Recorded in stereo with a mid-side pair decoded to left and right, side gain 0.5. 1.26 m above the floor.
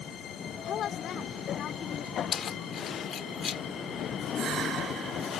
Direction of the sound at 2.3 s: 50° left.